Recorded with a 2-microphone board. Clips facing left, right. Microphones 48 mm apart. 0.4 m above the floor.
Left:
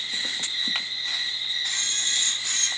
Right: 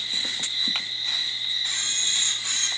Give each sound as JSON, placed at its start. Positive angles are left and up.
{"t": 0.0, "sound": "an insect", "side_deg": 55, "distance_m": 0.9}
{"t": 1.6, "sound": "a camera shutter", "side_deg": -20, "distance_m": 0.5}